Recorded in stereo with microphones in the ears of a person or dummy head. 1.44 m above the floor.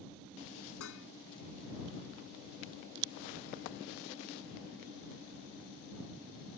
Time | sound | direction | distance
0.8 | dishes clattering | 70° left (ahead or behind) | ?